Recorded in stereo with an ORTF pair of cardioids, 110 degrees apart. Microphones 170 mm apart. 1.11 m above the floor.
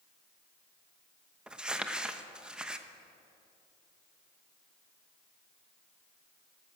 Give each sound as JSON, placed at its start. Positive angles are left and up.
{"t": 1.5, "sound": "crumpling", "azimuth_deg": -5, "distance_m": 1.0}